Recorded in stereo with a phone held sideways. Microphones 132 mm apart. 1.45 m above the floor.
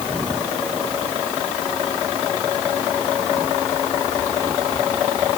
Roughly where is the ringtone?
No ringtone in this recording.